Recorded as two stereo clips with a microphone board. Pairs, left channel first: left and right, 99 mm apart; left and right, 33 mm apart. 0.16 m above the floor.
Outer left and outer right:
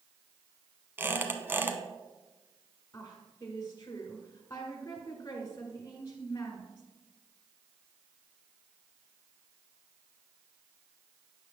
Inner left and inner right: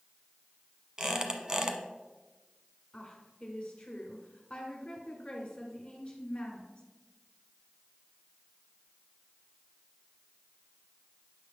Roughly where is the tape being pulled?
No tape being pulled in this recording.